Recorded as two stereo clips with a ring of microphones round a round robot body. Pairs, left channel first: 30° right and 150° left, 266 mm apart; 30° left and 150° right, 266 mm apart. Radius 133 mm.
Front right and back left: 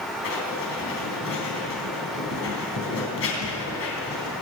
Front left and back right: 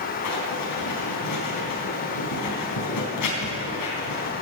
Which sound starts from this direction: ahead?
Writing, at 0.2 s.